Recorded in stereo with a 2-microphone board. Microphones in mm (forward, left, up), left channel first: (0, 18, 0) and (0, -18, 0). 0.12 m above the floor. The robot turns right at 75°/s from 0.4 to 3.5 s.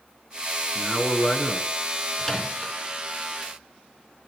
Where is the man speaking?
20° right (ahead or behind), 1.1 m; by 1.7 s 5° left (ahead or behind), 1.1 m.